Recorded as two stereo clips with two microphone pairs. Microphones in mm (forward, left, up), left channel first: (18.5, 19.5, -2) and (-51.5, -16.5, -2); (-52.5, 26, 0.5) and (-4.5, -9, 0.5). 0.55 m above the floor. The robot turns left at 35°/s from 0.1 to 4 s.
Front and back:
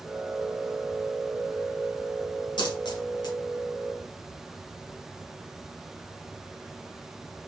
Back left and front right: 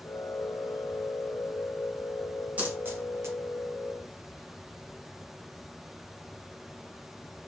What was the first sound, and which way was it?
A dropped coin, 30° left.